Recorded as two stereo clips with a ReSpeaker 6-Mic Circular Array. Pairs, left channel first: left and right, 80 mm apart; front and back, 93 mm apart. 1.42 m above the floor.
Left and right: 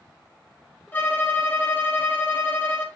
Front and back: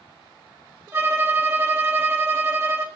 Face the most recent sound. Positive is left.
turn(degrees=140)